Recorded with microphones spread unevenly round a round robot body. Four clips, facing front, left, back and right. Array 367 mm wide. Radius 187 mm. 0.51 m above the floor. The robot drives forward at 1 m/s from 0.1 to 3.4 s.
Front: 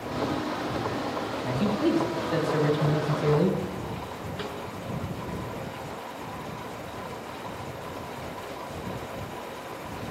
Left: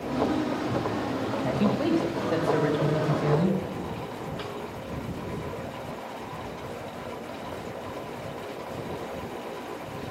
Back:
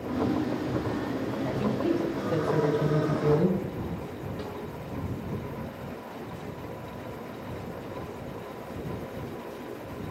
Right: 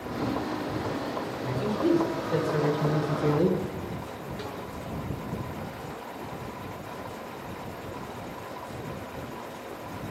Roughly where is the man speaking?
Left.